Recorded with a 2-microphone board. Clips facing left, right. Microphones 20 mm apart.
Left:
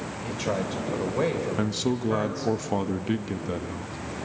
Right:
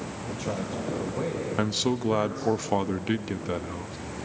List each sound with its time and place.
0.2 s a man speaking: 40° left (ahead or behind), 3.5 m
1.6 s a man speaking: 15° right (ahead or behind), 0.8 m